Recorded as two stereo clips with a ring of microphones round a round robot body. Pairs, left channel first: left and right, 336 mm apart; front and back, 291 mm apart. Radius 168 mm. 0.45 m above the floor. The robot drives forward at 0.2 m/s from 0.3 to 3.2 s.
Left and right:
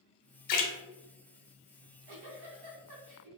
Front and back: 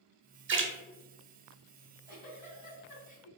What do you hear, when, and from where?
0.5 s a splash: 130° left, 0.7 m
1.8 s a giggle: 65° right, 1.8 m; by 3.3 s 75° right, 1.7 m